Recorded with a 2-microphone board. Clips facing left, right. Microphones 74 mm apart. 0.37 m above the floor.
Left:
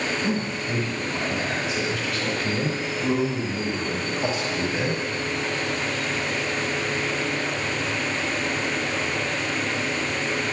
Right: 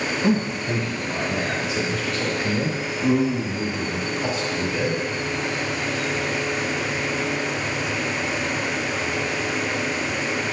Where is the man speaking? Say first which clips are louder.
Right 4 dB; 50° right (ahead or behind), 1.6 m; by 5.0 s 30° left (ahead or behind), 1.9 m.